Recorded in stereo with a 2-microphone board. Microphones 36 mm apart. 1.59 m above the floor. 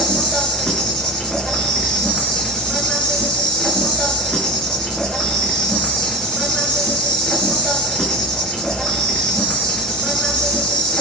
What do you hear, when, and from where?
0.0 s an insect: 25° left (ahead or behind), 3 m